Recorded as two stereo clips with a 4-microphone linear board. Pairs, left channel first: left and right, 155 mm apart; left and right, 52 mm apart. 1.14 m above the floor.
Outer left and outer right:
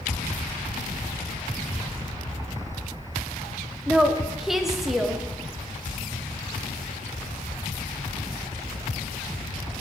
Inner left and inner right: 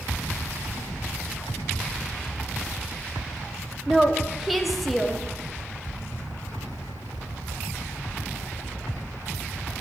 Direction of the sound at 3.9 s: Centre (ahead or behind).